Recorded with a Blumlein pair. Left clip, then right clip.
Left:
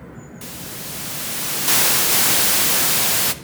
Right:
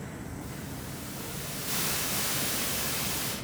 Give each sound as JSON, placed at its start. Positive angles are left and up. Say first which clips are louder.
{"t": 0.4, "sound": "a hiss", "louder": "left 7 dB", "azimuth_deg": 40, "distance_m": 0.6}